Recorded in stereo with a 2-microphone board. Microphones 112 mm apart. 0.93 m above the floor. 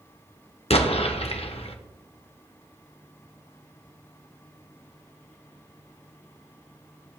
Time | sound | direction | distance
0.7 | an explosion | 65° left (ahead or behind) | 1.0 m